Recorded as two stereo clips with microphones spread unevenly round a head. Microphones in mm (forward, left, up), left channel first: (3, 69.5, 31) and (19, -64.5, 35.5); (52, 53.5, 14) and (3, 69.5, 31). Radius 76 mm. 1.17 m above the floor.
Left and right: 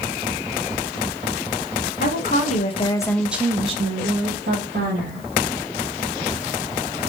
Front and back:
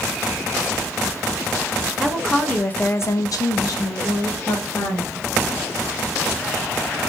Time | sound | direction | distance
2.0 | a woman speaking | 65° left | 1.0 m